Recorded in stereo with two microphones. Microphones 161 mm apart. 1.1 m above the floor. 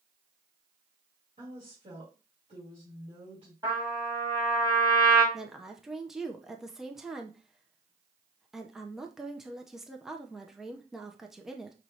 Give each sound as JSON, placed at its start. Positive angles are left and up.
{"t": 1.4, "sound": "a woman speaking", "side_deg": -45, "distance_m": 3.5}
{"t": 3.6, "sound": "a trumpet", "side_deg": -25, "distance_m": 4.0}
{"t": 5.3, "sound": "a woman speaking", "side_deg": -5, "distance_m": 0.7}